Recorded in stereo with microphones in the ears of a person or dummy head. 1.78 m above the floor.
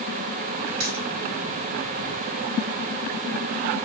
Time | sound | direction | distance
0.8 | a dropped coin | 60° right (ahead or behind) | 2.0 m